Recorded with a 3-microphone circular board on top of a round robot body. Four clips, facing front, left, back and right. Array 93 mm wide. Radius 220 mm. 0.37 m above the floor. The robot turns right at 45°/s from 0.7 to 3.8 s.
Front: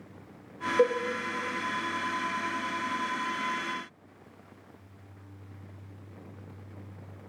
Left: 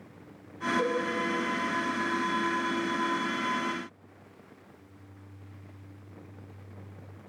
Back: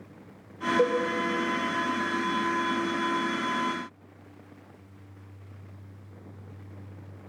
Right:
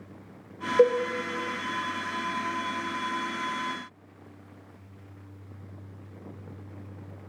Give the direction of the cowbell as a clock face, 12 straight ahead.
3 o'clock.